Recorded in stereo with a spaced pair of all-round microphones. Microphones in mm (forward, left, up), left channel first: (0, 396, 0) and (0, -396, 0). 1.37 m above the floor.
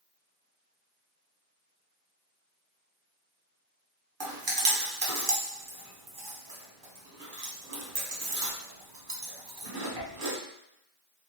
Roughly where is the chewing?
Right.